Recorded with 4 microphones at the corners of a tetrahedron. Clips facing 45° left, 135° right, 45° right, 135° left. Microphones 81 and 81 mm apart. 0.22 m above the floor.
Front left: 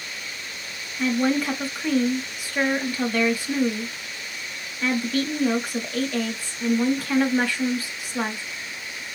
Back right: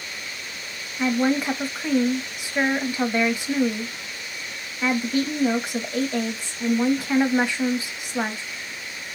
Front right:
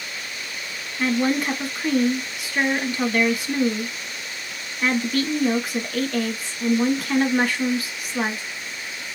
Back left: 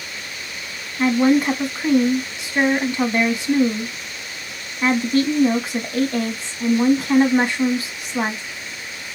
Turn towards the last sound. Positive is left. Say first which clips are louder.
# back right 1 dB, back left 6 dB
turn(degrees=170)